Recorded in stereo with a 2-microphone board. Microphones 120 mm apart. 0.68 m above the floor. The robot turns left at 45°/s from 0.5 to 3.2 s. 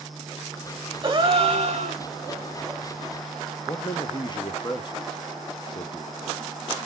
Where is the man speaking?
35° left (ahead or behind), 0.6 m.